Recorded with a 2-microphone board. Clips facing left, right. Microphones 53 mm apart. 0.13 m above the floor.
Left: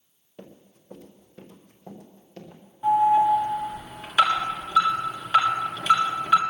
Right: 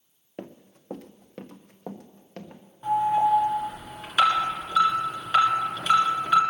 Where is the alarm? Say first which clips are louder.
Left 3 dB; 5° left (ahead or behind), 2 m.